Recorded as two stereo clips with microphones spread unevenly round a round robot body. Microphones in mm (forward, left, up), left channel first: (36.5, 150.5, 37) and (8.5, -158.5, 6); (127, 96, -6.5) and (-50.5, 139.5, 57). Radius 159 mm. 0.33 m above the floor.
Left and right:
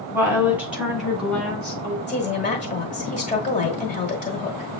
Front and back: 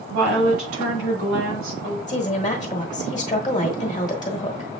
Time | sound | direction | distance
0.1 | a woman speaking | 175° right | 2 m
2.1 | a woman speaking | 25° left | 1.3 m